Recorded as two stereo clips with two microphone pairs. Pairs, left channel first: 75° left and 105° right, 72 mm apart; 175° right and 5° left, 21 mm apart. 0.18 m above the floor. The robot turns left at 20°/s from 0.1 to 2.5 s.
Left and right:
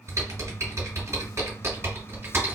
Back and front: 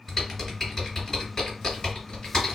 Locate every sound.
0.1 s typing on a keyboard: 95° right, 2 m; by 2.6 s 145° right, 2 m